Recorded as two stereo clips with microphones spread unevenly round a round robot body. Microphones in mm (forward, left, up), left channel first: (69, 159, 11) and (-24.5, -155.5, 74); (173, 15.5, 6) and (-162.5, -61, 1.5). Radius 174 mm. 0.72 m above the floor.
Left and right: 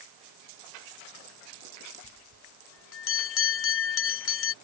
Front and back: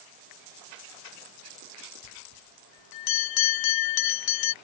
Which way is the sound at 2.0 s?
35° left.